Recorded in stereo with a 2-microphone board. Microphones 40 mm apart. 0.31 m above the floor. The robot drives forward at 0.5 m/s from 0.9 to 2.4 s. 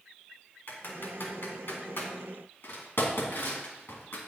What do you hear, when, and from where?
0.7 s typing on a keyboard: 60° left (ahead or behind), 2.5 m; by 4.2 s 65° left (ahead or behind), 2.5 m